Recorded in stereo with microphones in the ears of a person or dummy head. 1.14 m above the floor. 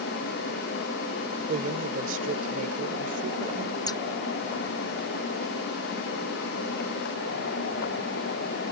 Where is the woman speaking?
50° right (ahead or behind).